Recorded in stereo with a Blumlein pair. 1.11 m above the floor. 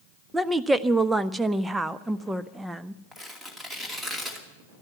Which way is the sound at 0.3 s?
10° right.